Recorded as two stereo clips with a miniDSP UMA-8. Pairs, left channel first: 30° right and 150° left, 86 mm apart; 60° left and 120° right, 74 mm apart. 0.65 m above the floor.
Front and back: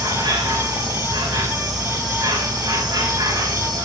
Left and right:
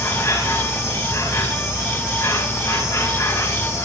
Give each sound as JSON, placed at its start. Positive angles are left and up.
{"t": 0.0, "sound": "an insect", "azimuth_deg": 115, "distance_m": 6.5}